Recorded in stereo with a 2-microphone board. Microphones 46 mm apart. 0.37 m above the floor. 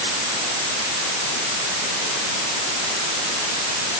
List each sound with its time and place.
Only background noise.